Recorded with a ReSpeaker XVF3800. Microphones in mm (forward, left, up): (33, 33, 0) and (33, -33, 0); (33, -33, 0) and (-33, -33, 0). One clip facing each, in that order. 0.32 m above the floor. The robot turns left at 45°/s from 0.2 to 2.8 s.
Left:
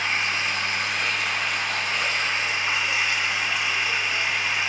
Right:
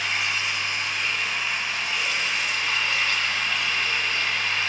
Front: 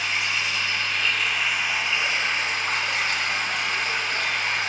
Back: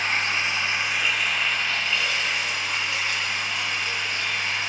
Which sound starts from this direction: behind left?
Running water, at 0.0 s.